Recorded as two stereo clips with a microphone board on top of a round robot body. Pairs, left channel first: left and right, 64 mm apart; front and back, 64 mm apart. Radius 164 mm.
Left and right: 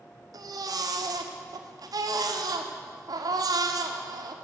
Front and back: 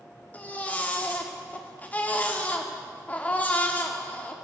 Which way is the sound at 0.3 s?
65° right.